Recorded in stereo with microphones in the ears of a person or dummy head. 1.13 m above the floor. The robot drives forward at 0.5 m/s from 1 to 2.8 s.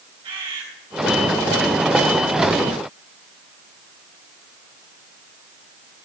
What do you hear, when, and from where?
0.2 s a bird: 30° right (ahead or behind), 3.5 m